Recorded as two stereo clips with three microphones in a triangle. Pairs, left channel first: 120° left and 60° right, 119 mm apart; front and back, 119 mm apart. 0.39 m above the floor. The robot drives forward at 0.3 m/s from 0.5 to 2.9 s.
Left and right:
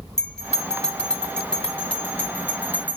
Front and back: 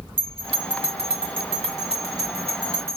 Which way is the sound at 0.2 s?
155° right.